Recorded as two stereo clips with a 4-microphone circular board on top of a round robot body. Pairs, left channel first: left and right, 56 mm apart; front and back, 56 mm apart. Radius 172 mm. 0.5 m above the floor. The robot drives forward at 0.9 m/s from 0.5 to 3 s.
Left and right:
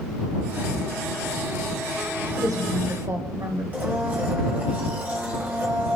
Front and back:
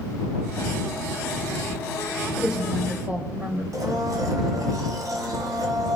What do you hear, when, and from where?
2.4 s a woman speaking: 100° right, 2.5 m; by 3.6 s 115° right, 2.5 m
3.7 s a blender: 155° right, 1.4 m